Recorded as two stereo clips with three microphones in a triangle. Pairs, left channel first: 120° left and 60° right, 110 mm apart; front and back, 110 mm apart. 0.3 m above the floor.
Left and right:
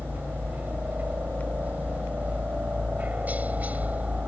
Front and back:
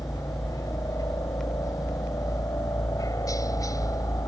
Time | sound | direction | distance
0.0 | a helicopter | 5° left | ?